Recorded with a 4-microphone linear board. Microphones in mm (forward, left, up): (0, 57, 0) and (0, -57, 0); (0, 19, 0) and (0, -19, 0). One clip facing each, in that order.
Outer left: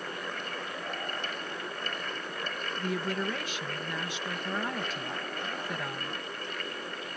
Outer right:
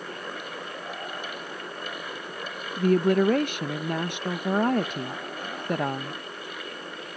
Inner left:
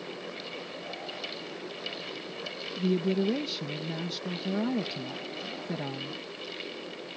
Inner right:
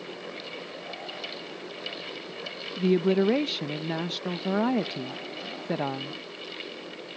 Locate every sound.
2.8 s a woman speaking: 60° right (ahead or behind)